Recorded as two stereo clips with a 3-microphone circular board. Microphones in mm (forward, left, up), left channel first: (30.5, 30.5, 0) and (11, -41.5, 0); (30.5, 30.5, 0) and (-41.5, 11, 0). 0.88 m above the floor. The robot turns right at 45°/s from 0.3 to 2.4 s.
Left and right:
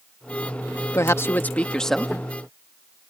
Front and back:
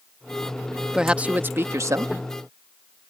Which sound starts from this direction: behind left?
A man speaking, at 0.9 s.